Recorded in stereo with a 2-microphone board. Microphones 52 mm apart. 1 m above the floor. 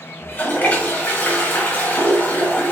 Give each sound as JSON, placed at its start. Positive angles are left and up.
{"t": 0.2, "sound": "a toilet flushing", "side_deg": 35, "distance_m": 2.0}